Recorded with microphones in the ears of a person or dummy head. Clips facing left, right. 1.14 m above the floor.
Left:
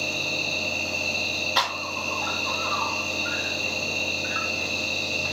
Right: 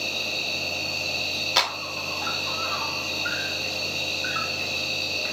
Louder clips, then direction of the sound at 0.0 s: Left 3 dB; 25° right (ahead or behind).